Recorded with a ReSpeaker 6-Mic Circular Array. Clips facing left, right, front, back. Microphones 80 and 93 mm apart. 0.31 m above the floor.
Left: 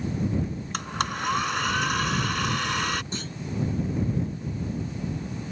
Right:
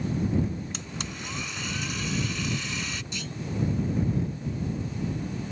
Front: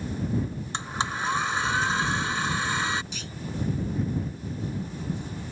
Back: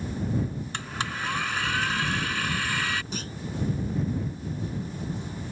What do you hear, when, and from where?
0.7 s a blender: 65° left
3.1 s a clunk: 135° left